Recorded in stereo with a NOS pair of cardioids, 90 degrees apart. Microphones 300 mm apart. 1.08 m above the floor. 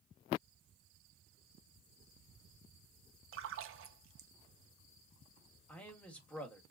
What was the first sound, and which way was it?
A splash, 45° right.